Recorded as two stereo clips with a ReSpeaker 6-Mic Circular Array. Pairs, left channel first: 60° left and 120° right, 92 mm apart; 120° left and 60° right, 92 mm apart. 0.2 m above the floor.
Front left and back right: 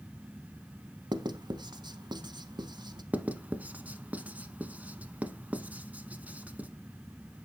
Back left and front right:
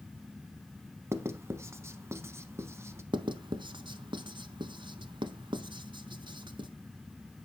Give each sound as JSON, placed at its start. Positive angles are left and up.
{"t": 1.1, "sound": "writing", "azimuth_deg": -110, "distance_m": 0.7}
{"t": 3.1, "sound": "writing", "azimuth_deg": -50, "distance_m": 0.6}